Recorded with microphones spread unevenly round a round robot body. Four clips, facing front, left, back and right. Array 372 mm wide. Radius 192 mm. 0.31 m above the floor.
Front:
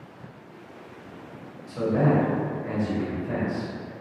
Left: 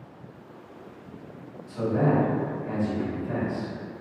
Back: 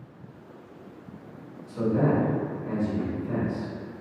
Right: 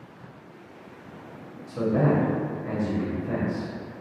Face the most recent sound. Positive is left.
turn(degrees=-75)